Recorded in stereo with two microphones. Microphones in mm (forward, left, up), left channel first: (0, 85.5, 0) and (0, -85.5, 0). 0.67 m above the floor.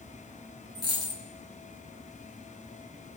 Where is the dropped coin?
80° left, 2.5 m.